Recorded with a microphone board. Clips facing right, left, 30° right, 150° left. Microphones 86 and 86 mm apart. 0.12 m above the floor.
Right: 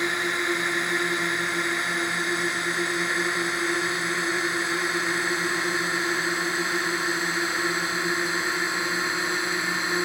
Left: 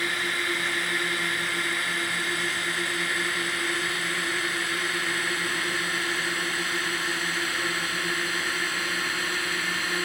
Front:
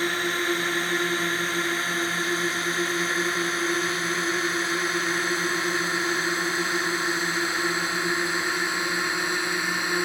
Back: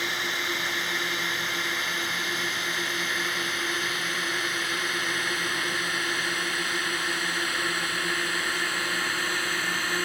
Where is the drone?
40° right; by 10.1 s 70° right.